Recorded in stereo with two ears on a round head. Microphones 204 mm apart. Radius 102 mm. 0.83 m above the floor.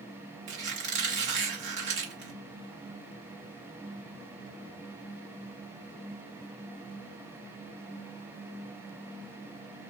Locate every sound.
0.5 s a squeak: 50° right (ahead or behind), 1.0 m